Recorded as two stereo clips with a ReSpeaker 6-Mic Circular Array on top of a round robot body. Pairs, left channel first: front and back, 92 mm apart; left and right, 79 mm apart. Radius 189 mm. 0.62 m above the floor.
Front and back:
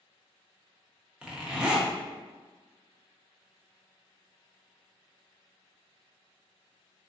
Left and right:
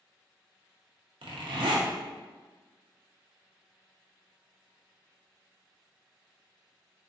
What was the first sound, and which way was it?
A zipper, 100° right.